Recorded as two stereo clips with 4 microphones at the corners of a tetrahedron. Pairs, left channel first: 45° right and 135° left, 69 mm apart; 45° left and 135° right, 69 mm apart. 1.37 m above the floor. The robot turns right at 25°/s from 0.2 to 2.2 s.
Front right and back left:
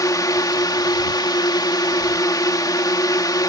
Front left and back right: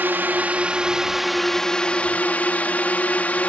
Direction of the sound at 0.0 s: 75° right.